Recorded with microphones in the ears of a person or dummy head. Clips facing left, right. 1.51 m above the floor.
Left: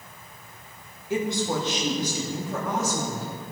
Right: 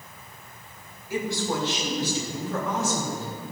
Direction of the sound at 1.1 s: 20° left (ahead or behind).